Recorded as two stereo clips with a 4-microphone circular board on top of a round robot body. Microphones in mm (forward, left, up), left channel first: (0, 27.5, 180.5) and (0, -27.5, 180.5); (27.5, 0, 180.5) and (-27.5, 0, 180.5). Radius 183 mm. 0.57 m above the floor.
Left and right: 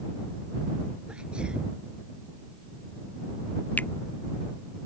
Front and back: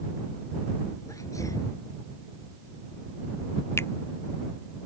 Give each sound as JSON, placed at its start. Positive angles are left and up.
{"t": 1.1, "sound": "a sneeze", "azimuth_deg": -15}
{"t": 3.8, "sound": "a finger snap", "azimuth_deg": 30}